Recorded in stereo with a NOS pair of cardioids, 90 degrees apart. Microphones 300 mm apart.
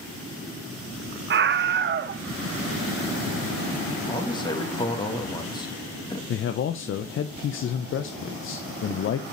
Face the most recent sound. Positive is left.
turn(degrees=45)